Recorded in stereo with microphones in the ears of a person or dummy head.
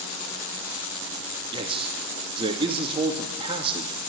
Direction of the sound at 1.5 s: 30° right (ahead or behind).